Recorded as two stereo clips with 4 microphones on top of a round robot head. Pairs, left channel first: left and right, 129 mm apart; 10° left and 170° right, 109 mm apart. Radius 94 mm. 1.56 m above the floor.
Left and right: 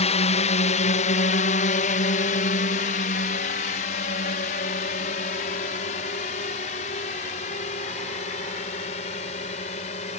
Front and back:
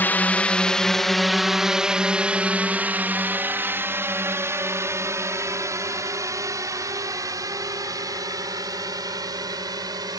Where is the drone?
75° left; by 10.2 s 135° left.